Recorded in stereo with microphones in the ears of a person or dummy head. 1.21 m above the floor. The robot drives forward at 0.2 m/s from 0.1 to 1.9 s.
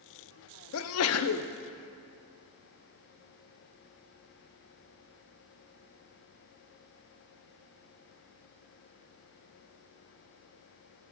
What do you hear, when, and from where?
0.7 s a sneeze: 80° left, 0.6 m; by 1.5 s 85° left, 0.5 m